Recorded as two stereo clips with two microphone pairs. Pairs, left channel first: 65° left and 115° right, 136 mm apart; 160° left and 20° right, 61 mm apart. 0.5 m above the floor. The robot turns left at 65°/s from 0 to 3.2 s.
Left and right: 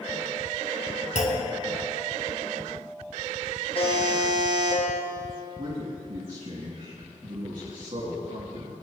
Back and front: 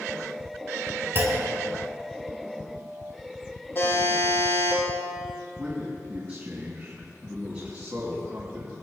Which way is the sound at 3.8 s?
110° left.